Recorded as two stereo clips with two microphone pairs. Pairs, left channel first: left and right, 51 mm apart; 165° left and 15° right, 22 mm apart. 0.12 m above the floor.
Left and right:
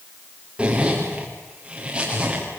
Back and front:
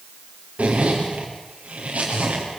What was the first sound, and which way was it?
A zipper, 20° right.